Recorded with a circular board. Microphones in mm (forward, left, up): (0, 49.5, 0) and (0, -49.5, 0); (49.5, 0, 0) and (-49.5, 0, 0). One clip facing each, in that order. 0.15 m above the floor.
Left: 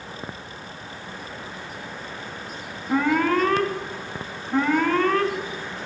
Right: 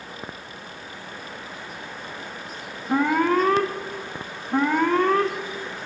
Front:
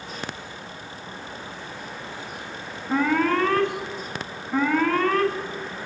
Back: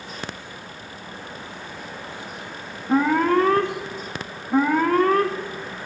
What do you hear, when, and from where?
2.9 s an alarm: 145° right, 0.7 m